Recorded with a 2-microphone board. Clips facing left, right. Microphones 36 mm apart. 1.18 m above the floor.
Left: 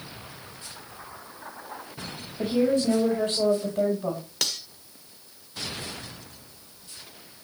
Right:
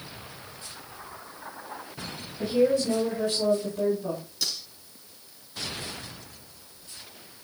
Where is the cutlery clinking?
75° left (ahead or behind), 2.0 m.